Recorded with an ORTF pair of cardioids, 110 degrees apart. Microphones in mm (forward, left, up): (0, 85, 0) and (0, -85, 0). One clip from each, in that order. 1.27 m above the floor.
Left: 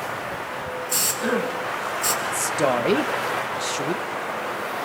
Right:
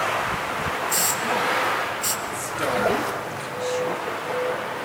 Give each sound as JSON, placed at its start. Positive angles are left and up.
{"t": 0.9, "sound": "a hiss", "azimuth_deg": 5, "distance_m": 3.0}
{"t": 2.2, "sound": "a man speaking", "azimuth_deg": 45, "distance_m": 1.6}